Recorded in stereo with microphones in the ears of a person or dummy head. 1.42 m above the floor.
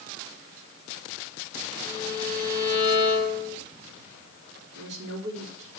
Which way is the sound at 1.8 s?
15° left (ahead or behind).